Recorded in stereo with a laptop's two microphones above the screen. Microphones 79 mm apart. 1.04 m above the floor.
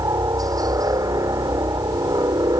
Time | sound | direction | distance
0.0 | a helicopter | 55° right (ahead or behind) | ?